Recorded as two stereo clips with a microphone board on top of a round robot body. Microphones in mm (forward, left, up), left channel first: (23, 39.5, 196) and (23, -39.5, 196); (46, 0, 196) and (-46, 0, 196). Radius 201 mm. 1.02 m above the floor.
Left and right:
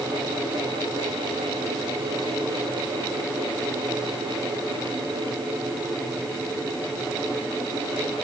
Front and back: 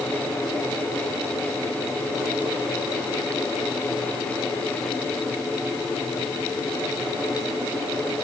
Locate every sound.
Only background noise.